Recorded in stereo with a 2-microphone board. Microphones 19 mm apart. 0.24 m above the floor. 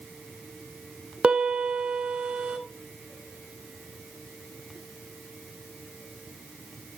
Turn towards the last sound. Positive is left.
turn(degrees=-60)  # may be behind; listen again after turning